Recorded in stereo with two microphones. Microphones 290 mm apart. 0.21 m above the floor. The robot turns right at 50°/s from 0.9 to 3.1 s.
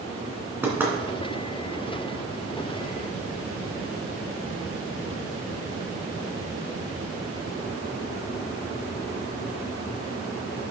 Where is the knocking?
5° right (ahead or behind), 2 m.